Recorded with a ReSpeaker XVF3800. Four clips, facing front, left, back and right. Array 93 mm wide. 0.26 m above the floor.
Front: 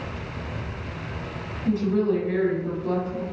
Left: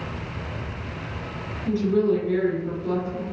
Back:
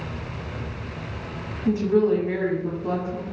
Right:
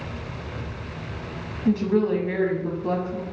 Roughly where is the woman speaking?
Right.